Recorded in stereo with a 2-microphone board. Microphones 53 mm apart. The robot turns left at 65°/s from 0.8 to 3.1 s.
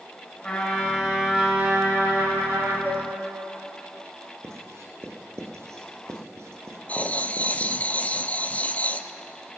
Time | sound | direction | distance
0.4 | a trumpet | 20° left | 6.5 m
2.9 | dishes clattering | 45° right (ahead or behind) | 4 m
4.4 | writing | 60° right (ahead or behind) | 2 m
6.9 | writing | 30° left (ahead or behind) | 0.6 m